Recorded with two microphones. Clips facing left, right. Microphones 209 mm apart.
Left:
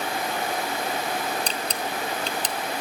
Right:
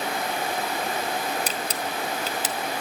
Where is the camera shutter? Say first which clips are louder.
Even; 5° right (ahead or behind), 1.5 m.